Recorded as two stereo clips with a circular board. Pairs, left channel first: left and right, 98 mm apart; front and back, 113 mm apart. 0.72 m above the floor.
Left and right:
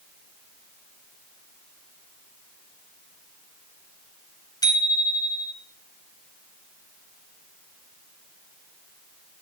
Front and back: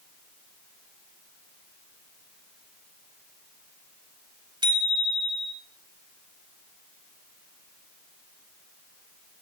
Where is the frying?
No frying in this recording.